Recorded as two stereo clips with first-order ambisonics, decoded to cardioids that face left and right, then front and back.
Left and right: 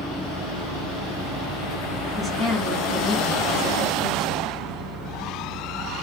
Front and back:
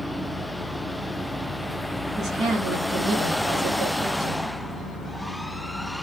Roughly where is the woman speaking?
Behind.